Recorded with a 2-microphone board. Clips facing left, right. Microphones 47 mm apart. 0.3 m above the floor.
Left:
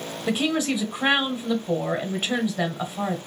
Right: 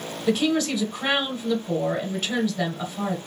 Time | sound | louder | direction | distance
0.3 | a woman speaking | right 2 dB | 20° left (ahead or behind) | 1.0 m